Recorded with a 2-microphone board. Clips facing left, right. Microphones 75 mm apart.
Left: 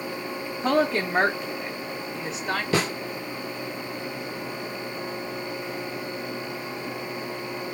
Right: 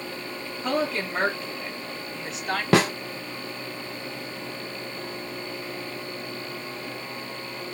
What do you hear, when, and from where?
0.6 s a woman speaking: 40° left (ahead or behind), 0.7 m; by 2.6 s centre (ahead or behind), 1.0 m
2.7 s a snare drum: 70° right (ahead or behind), 0.9 m